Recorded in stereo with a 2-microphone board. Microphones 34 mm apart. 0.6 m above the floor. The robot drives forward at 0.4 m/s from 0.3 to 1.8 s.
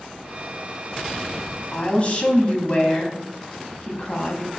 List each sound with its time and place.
1.7 s a woman speaking: 40° left (ahead or behind), 1.3 m